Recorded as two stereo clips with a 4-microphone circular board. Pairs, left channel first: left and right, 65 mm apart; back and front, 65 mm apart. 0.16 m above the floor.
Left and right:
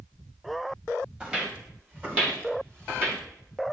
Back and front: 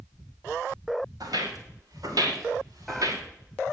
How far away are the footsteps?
About 6.5 m.